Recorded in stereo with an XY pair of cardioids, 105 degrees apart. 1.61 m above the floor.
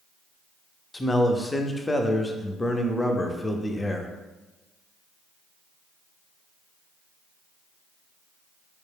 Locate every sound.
0.9 s a man speaking: 15° left, 0.6 m